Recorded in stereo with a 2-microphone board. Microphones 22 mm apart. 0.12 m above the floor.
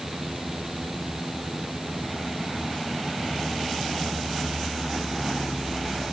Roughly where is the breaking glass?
No breaking glass in this recording.